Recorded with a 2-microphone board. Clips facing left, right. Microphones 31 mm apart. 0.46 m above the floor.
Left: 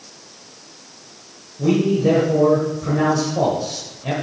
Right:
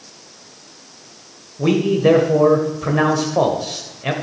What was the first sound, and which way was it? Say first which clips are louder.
A man speaking: right 2 dB; 60° right (ahead or behind).